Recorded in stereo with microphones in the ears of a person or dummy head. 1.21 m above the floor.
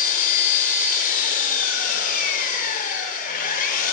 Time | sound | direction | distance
0.0 | an engine running | 45° left (ahead or behind) | 3.5 m